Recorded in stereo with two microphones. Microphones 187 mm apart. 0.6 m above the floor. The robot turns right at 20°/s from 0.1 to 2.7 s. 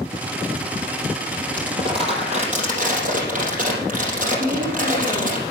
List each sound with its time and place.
1.6 s crumpling: 25° right (ahead or behind), 4 m; by 5.4 s 45° right (ahead or behind), 4 m
4.4 s a woman speaking: 65° right (ahead or behind), 6 m